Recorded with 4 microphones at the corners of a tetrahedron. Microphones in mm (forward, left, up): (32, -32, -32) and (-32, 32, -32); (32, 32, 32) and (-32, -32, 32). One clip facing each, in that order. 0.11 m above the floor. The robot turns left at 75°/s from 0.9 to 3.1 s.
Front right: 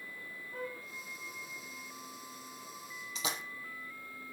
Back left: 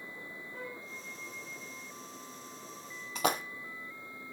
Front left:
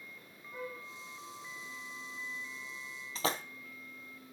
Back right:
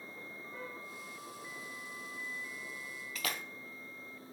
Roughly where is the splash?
Left.